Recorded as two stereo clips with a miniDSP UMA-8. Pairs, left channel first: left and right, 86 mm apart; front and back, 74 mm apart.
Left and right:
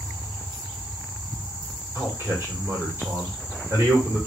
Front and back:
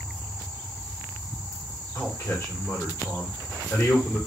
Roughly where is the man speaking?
Ahead right.